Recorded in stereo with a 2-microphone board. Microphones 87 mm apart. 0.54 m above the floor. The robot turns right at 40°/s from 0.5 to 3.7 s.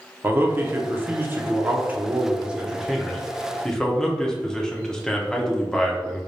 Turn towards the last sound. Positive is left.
turn(degrees=10)  # may be behind; listen again after turning